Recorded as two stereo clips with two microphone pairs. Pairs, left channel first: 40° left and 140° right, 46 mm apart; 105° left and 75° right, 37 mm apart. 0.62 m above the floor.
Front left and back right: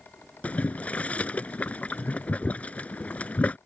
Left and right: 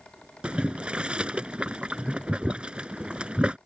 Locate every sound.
0.4 s boiling: 15° right